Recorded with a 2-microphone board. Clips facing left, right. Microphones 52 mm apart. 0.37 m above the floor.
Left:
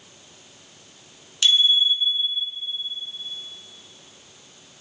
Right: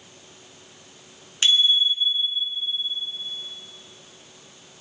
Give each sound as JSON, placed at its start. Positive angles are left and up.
{"t": 1.4, "sound": "a bicycle bell", "side_deg": -30, "distance_m": 3.0}